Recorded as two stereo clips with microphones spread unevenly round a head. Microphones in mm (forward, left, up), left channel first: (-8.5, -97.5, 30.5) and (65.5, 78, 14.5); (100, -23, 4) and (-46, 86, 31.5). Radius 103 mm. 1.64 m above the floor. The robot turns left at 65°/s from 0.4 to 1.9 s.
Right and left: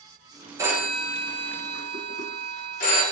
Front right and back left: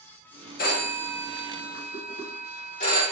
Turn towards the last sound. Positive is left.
turn(degrees=-90)